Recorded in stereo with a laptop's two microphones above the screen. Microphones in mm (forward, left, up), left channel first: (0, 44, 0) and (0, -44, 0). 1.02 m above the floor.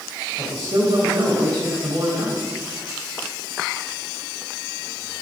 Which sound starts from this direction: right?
A man speaking, at 0.4 s.